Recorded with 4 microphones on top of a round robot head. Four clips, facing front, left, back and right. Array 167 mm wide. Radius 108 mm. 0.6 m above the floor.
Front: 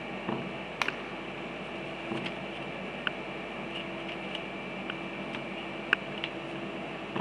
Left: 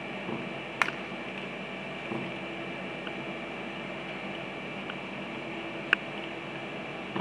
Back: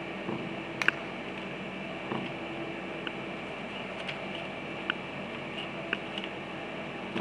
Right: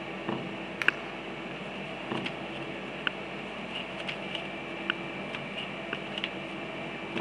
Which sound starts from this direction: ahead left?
A finger snap, at 0.8 s.